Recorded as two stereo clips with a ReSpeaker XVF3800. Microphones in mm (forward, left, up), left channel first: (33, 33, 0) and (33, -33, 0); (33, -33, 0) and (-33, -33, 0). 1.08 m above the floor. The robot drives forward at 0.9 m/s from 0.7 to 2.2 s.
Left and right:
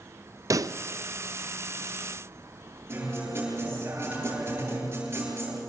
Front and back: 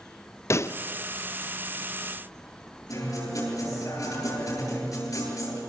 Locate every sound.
0.5 s a pop: 50° right, 0.6 m; by 0.8 s 55° right, 0.5 m
2.9 s a guitar: 35° right, 9.5 m